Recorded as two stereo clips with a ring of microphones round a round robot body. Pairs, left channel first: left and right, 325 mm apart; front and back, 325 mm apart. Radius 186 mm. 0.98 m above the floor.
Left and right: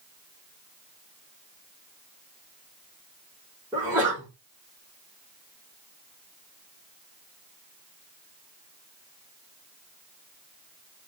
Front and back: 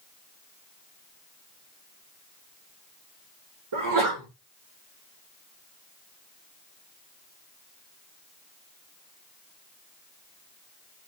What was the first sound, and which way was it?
A sneeze, 175° right.